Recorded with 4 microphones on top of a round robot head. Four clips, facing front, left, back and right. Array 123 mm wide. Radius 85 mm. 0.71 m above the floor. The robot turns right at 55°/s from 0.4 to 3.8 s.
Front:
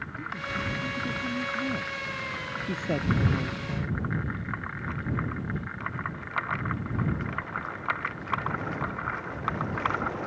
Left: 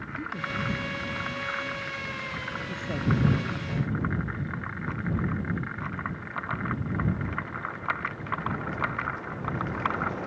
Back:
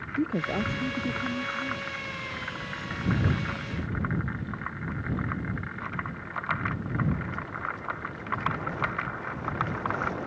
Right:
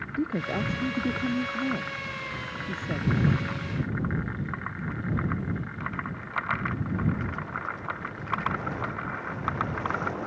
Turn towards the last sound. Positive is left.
turn(degrees=45)